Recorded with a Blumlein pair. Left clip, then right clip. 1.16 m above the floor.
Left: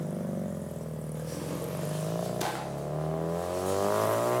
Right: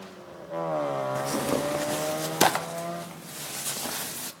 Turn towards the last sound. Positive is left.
turn(degrees=-35)